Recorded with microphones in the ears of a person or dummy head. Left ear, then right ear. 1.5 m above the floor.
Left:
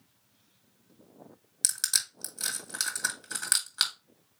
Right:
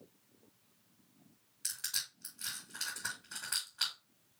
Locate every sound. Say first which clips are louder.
1.6 s crushing: left 9 dB; 80° left, 2.5 m